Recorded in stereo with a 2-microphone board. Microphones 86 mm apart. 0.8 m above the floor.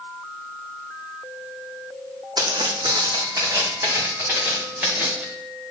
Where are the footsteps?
60° right (ahead or behind), 1.6 m; by 5.3 s 20° right (ahead or behind), 3.5 m.